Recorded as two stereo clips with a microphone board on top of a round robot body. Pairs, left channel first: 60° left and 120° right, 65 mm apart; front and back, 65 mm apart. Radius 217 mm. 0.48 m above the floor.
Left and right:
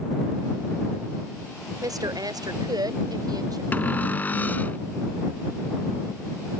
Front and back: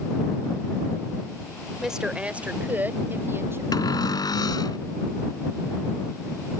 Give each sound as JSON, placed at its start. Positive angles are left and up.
{"t": 1.8, "sound": "a woman speaking", "azimuth_deg": -100}
{"t": 3.7, "sound": "a cupboard door", "azimuth_deg": -5}